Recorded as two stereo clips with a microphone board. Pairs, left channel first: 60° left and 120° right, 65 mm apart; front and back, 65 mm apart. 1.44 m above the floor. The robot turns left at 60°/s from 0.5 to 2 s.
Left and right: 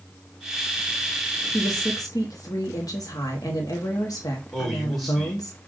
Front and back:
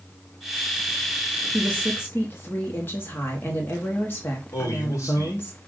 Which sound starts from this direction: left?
A woman speaking, at 1.5 s.